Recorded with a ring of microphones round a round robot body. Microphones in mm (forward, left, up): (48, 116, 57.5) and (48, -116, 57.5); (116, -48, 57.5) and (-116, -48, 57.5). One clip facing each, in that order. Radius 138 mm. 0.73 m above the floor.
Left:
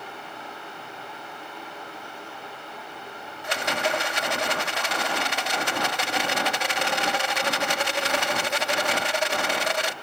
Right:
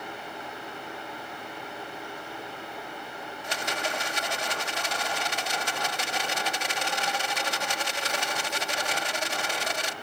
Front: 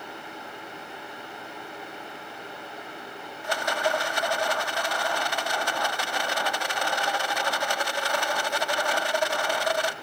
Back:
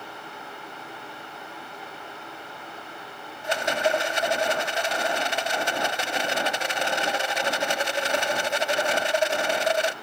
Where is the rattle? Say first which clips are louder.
Left 6 dB, back 3 dB; 115° left.